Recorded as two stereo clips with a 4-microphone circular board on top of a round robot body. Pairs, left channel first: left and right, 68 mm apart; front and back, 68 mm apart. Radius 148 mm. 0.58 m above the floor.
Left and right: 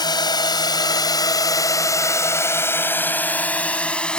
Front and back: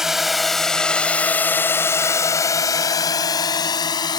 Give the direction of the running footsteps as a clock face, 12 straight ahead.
I don't hear running footsteps.